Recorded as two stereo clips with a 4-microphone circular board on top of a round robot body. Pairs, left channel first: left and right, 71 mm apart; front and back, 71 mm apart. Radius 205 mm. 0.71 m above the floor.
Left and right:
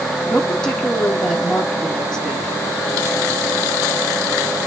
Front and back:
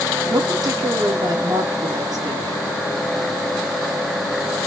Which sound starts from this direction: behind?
A woman speaking, at 0.3 s.